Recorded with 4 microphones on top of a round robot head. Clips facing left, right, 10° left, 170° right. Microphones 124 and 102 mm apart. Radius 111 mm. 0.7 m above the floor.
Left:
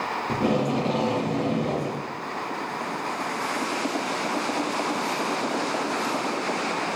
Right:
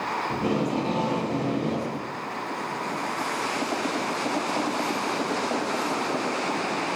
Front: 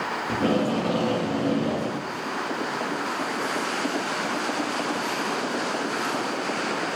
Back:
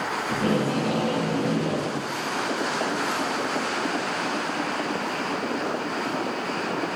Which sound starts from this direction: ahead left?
Tape being pulled, at 0.3 s.